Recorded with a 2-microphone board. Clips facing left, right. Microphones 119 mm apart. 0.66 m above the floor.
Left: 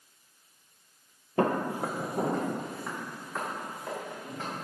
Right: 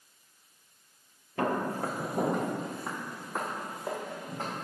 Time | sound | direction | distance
1.4 | footsteps | 40° left (ahead or behind) | 0.8 m